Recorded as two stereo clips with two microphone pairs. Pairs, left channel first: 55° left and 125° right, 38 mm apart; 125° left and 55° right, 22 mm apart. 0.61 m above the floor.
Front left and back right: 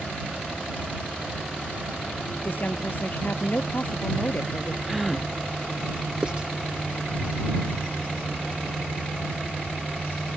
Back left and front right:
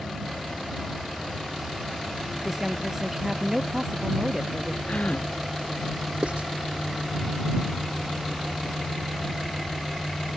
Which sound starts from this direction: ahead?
A woman speaking, at 2.4 s.